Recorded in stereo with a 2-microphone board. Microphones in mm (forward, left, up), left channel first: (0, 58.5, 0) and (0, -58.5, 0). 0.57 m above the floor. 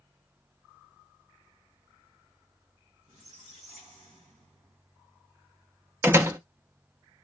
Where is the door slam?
20° right (ahead or behind), 0.7 m.